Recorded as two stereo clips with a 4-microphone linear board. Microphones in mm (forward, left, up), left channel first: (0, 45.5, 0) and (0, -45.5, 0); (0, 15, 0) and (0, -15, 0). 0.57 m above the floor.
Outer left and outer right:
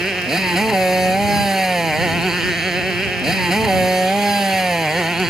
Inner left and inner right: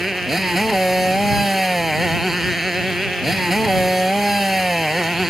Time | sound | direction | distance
0.0 | a motorcycle | 5° right (ahead or behind) | ?